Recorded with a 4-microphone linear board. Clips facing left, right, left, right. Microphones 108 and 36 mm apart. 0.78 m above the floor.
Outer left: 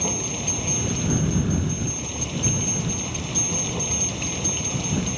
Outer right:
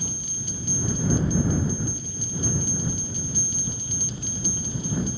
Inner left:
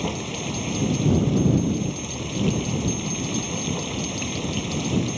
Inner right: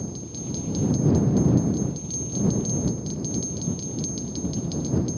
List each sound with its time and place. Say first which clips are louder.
0.0 s running water: outer left 9 dB, inner left 7 dB; 80° left